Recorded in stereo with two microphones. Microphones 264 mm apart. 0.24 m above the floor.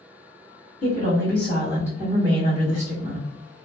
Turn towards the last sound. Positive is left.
turn(degrees=-40)  # may be behind; listen again after turning